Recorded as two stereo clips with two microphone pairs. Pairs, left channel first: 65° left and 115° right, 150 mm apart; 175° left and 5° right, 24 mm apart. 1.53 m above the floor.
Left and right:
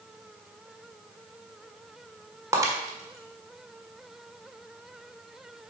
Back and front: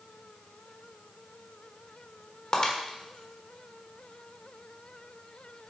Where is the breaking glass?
170° right, 1.4 m.